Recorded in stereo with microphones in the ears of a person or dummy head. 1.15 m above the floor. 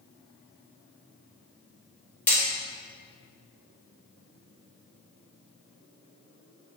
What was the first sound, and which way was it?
Hammering, 10° left (ahead or behind).